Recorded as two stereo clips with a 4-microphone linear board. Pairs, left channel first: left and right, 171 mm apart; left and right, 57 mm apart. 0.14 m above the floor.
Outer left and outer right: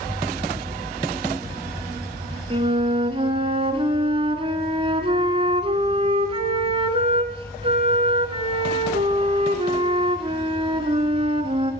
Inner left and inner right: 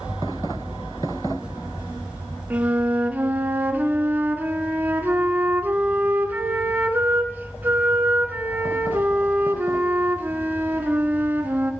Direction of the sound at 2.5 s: 35° right (ahead or behind).